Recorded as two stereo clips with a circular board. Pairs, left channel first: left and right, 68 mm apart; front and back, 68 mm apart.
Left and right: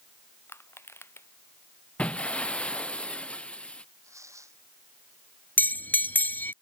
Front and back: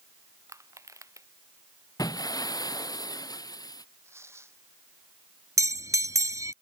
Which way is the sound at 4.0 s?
135° right.